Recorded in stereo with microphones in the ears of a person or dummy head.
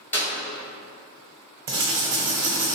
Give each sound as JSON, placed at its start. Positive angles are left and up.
{"t": 0.1, "sound": "a clap", "side_deg": 10, "distance_m": 1.7}
{"t": 1.7, "sound": "writing", "side_deg": -10, "distance_m": 0.5}